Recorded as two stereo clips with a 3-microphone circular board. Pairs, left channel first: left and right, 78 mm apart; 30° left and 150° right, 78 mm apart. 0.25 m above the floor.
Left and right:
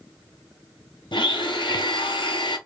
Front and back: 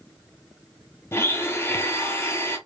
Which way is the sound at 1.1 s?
90° left.